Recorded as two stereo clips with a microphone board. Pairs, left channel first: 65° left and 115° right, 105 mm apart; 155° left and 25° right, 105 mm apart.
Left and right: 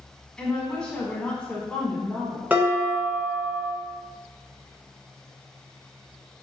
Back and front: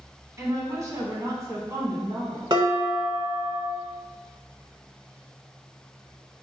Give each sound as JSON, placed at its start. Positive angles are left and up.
{"t": 0.4, "sound": "a woman speaking", "azimuth_deg": -5, "distance_m": 1.2}
{"t": 2.5, "sound": "dishes clattering", "azimuth_deg": -45, "distance_m": 1.2}